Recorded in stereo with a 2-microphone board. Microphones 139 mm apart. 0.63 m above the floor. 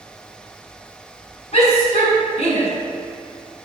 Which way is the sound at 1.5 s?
45° left (ahead or behind).